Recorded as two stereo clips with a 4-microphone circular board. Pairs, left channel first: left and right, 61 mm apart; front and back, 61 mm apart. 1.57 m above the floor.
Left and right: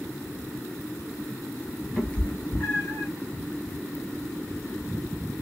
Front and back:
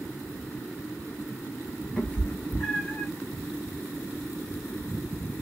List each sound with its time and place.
2.0 s a cat meowing: 25° left, 0.9 m; by 3.1 s 60° left, 1.3 m